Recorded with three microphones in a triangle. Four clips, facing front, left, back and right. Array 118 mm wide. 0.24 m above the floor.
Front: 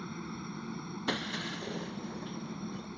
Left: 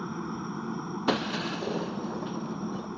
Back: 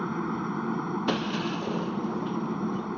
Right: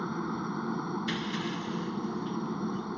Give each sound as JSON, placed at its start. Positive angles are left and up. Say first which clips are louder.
{"t": 0.0, "sound": "a helicopter", "louder": "right 1 dB, back 12 dB", "azimuth_deg": -165}
{"t": 1.1, "sound": "breaking glass", "louder": "left 4 dB, back 5 dB", "azimuth_deg": 110}